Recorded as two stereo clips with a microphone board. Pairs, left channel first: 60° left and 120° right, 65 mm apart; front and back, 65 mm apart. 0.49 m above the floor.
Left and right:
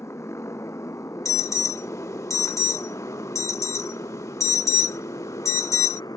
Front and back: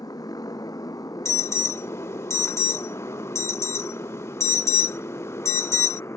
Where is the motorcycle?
15° left; by 6.2 s 45° left.